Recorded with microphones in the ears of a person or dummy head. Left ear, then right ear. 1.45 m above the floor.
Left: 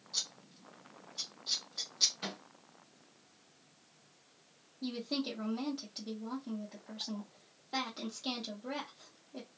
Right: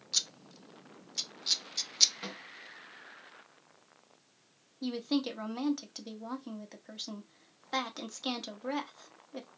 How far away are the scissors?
About 0.5 m.